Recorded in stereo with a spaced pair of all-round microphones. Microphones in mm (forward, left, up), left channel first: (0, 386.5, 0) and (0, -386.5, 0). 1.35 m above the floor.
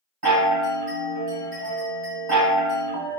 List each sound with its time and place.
0.2 s a chime: 60° right (ahead or behind), 1.5 m